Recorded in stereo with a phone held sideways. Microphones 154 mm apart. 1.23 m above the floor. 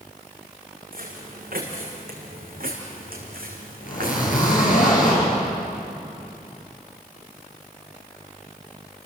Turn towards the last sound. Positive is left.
turn(degrees=60)  # may be behind; listen again after turning